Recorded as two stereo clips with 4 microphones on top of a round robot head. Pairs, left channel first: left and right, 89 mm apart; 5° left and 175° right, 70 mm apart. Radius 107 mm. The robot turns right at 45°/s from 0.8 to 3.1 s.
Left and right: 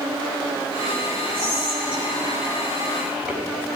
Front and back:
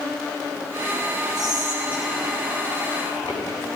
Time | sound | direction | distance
1.4 | whispering | 95° right | 5 m